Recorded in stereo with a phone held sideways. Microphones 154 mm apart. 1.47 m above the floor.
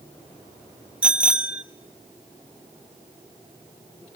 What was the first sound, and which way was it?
A bicycle bell, 10° right (ahead or behind).